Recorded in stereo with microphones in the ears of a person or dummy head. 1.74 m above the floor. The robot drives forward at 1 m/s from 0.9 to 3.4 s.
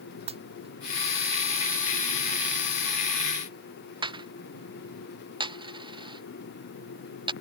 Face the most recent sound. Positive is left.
turn(degrees=-30)  # may be behind; listen again after turning